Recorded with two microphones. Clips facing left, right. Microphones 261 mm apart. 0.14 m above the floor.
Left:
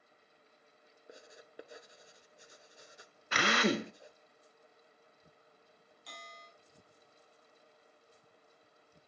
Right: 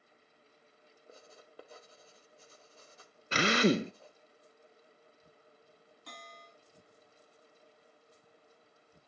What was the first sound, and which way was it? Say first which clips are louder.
Writing: left 2 dB; 15° left (ahead or behind).